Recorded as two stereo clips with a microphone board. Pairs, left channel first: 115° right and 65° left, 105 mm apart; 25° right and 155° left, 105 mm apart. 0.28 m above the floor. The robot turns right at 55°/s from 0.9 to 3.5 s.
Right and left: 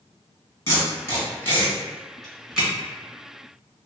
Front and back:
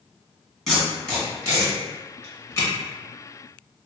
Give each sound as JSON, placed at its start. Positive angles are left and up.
{"t": 0.7, "sound": "tape being pulled", "azimuth_deg": -110, "distance_m": 1.4}